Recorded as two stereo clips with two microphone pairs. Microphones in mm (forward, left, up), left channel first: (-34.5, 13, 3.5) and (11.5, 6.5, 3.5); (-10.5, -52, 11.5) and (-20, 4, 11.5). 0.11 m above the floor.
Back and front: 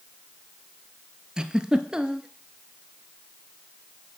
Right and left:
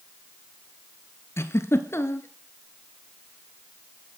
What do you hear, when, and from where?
1.4 s a giggle: 80° right, 1.5 m